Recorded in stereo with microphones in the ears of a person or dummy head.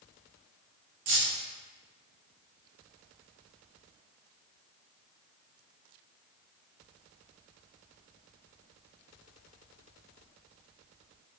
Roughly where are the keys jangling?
Right.